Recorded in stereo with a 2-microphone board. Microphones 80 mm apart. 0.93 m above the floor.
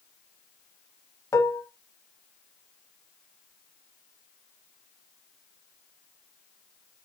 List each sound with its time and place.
1.3 s dishes clattering: 40° left (ahead or behind), 0.9 m